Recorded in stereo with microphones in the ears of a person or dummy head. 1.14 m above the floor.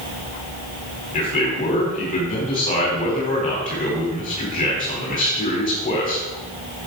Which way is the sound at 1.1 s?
35° left (ahead or behind).